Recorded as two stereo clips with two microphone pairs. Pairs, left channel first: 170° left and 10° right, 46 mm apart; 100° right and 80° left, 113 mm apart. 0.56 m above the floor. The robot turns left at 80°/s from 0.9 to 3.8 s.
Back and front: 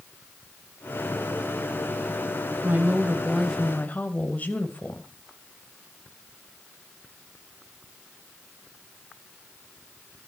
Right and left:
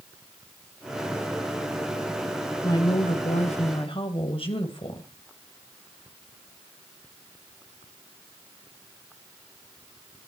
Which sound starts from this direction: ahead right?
A woman speaking, at 2.6 s.